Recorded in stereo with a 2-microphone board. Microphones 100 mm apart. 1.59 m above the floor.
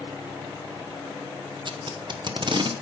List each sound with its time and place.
1.6 s tape being pulled: 50° right (ahead or behind), 0.8 m